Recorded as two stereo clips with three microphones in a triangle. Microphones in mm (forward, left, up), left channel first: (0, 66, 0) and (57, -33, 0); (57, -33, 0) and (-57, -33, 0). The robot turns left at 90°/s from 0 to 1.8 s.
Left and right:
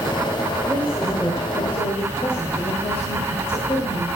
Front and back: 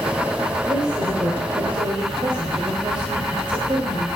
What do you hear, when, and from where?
0.7 s a woman speaking: 115° right, 2 m; by 4.1 s 140° left, 2 m